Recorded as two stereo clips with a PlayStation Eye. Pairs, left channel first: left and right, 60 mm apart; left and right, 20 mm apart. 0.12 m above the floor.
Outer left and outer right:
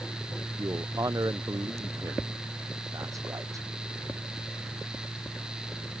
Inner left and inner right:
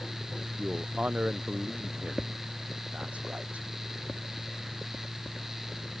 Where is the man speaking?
75° right (ahead or behind).